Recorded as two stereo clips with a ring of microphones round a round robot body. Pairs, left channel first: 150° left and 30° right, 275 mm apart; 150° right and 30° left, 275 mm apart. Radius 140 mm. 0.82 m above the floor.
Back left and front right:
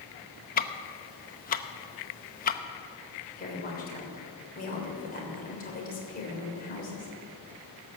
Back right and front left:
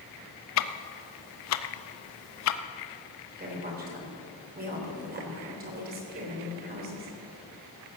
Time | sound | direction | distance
0.6 | ticking | 155° right | 0.7 m
3.4 | a woman speaking | 90° left | 3 m